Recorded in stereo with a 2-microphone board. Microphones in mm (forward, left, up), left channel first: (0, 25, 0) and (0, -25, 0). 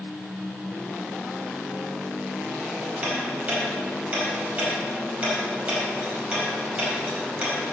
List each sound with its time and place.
3.0 s ticking: 25° right (ahead or behind), 4 m